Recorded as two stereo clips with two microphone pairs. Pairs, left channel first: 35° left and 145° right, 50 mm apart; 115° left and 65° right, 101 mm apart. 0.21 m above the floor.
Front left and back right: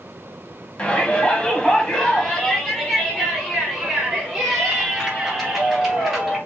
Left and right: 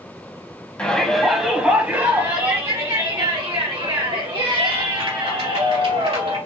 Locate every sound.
0.8 s a shout: 50° left, 1.2 m; by 6.4 s 60° right, 3 m